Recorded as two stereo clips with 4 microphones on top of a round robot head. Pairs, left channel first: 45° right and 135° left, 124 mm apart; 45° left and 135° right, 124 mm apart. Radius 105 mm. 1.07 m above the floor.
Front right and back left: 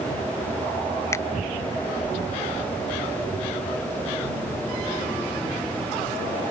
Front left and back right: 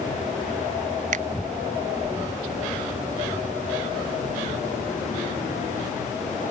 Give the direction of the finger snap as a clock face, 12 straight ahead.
4 o'clock.